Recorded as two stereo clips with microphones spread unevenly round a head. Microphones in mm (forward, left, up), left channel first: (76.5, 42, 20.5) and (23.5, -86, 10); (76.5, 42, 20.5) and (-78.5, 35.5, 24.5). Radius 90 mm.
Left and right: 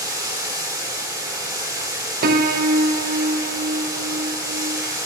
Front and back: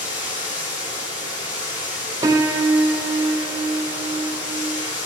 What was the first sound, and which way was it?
Running water, 45° right.